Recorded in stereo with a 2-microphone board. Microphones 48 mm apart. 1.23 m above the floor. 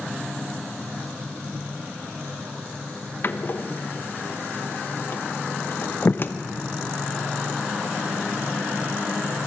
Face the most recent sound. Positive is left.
turn(degrees=45)  # may be behind; listen again after turning